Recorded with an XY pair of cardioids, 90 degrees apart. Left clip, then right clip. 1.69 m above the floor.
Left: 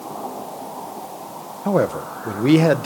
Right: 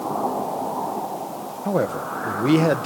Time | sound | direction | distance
1.6 | a man speaking | 25° left | 1.3 m